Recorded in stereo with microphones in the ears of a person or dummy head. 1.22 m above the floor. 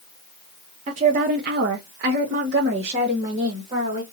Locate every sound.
0.9 s a woman speaking: 35° right (ahead or behind), 0.6 m; by 4.0 s 30° right (ahead or behind), 1.6 m